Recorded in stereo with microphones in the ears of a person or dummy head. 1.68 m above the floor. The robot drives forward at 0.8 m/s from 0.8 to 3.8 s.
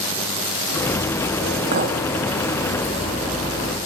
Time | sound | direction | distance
1.7 | a clink | 50° right (ahead or behind) | 1.9 m